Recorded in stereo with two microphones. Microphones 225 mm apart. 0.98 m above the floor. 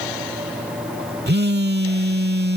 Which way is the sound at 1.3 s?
50° right (ahead or behind).